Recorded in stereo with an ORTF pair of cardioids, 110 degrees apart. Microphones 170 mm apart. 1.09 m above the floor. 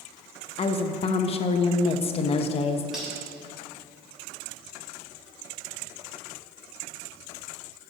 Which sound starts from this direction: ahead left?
A woman speaking, at 0.6 s.